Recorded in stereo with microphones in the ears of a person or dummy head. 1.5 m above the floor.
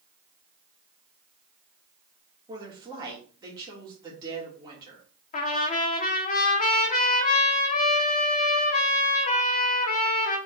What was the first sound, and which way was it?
A woman speaking, 20° right (ahead or behind).